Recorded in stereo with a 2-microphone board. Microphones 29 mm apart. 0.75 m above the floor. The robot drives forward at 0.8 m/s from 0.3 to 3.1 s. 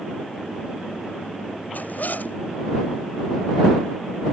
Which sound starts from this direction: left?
A zipper, at 1.7 s.